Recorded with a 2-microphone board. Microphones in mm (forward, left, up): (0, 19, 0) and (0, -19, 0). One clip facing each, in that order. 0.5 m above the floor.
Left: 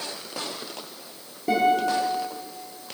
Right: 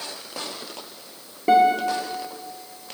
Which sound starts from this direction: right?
A guitar, at 1.5 s.